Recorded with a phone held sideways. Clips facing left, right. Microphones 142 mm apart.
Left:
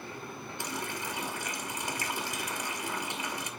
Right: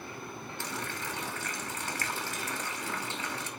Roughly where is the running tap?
Centre.